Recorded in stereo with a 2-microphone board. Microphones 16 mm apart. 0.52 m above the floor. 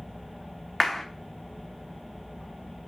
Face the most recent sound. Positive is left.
turn(degrees=10)  # may be behind; listen again after turning